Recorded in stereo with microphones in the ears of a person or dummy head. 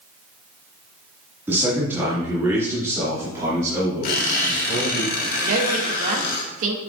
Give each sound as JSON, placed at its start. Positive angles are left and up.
{"t": 1.5, "sound": "a man speaking", "side_deg": -15, "distance_m": 2.0}
{"t": 4.0, "sound": "a squeak", "side_deg": 55, "distance_m": 2.0}
{"t": 5.4, "sound": "a woman speaking", "side_deg": -55, "distance_m": 2.0}